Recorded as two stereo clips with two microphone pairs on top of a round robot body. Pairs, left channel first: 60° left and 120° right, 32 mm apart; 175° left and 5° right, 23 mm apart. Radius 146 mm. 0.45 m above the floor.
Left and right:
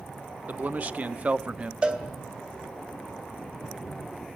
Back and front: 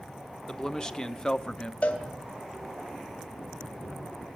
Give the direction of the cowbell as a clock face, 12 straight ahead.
6 o'clock.